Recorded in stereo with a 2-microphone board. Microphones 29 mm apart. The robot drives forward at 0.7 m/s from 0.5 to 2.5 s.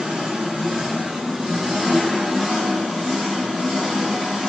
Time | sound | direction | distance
0.0 | an engine running | 20° right (ahead or behind) | 4.5 m